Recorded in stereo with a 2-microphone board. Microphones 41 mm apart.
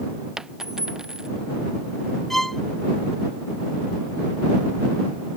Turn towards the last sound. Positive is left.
turn(degrees=10)  # may be behind; listen again after turning